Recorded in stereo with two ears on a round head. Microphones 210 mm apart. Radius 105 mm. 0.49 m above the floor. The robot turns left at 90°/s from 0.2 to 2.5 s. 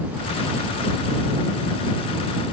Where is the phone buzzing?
No phone buzzing in this recording.